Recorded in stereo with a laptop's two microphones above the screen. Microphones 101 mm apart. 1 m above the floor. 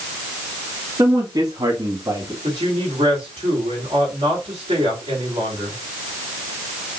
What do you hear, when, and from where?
1.0 s a man speaking: 45° right (ahead or behind), 1.6 m; by 2.3 s 35° right (ahead or behind), 2.5 m
2.4 s a woman speaking: 65° right (ahead or behind), 3 m